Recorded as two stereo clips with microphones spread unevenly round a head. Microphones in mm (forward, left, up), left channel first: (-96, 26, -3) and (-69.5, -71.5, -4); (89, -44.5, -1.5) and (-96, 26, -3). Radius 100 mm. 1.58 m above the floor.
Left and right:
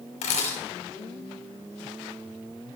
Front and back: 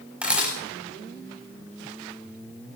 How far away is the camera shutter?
About 5.5 m.